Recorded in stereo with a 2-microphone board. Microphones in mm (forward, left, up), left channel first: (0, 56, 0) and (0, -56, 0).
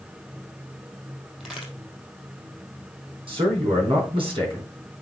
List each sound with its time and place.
1.4 s a crack: 5° right (ahead or behind), 3 m
3.3 s a man speaking: 50° right (ahead or behind), 4 m